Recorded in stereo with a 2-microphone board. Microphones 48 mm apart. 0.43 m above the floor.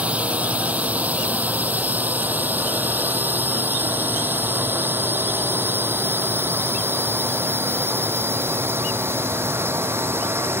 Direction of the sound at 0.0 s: 30° right (ahead or behind).